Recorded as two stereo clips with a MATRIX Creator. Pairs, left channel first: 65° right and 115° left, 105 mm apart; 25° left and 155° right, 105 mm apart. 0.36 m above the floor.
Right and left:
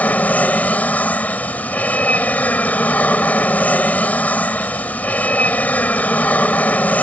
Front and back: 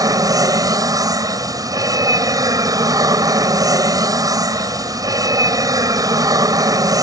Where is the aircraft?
135° right.